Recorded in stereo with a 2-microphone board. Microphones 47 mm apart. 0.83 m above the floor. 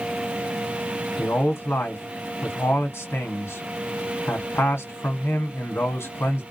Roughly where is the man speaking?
Left.